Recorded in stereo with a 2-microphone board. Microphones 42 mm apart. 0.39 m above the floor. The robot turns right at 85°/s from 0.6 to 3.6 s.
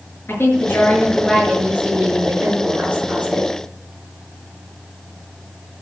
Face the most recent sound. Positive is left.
turn(degrees=5)